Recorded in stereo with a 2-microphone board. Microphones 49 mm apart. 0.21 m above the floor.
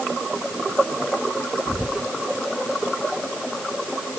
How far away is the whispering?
About 6 m.